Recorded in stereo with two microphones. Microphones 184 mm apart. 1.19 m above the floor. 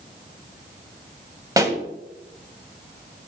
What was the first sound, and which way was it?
A pop, 20° right (ahead or behind).